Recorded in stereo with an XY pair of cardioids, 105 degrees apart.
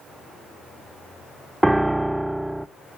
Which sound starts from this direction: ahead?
A piano, at 1.6 s.